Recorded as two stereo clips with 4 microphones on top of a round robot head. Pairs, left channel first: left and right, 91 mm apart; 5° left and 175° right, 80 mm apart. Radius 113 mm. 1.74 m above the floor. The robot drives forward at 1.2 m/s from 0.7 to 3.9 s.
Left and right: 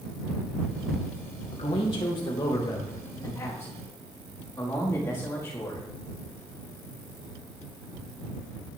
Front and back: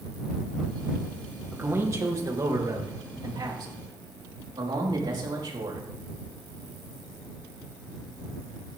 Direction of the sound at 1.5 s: 115° left.